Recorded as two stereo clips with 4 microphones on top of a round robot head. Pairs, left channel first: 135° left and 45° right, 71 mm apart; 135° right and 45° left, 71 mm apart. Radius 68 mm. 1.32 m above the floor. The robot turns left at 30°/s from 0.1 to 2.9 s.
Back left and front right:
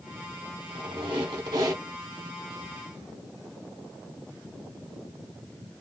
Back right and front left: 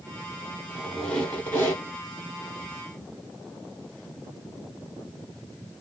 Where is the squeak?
50° right, 1.3 m; by 1.8 s 85° right, 1.3 m.